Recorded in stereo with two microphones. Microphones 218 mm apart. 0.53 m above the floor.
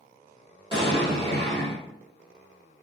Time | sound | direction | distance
0.7 | an explosion | 20° right (ahead or behind) | 1.5 m